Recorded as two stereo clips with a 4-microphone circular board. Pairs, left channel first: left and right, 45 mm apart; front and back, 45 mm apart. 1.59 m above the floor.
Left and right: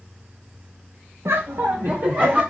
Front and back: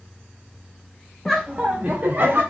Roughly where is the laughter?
Right.